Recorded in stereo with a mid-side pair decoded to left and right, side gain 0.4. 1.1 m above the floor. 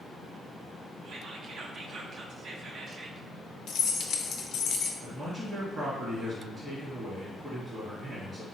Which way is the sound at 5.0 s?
40° right.